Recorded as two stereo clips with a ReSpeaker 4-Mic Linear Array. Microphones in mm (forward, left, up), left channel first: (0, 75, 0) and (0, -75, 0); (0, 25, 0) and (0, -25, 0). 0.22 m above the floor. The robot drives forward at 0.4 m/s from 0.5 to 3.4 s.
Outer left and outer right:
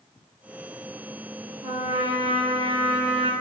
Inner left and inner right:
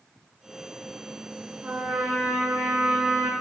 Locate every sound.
1.6 s a trumpet: 40° right (ahead or behind), 4 m; by 3.3 s 35° right (ahead or behind), 4.5 m